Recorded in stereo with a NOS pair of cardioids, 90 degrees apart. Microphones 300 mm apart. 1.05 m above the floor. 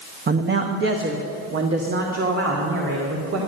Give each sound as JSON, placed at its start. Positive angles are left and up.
{"t": 0.3, "sound": "a man speaking", "azimuth_deg": -35, "distance_m": 0.9}